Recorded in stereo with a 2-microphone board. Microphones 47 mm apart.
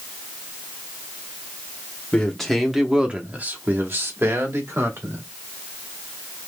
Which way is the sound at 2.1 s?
15° left (ahead or behind).